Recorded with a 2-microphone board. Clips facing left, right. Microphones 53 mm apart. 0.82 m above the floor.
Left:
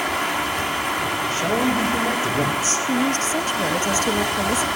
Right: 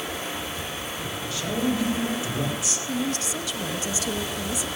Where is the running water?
70° left (ahead or behind), 1.9 m.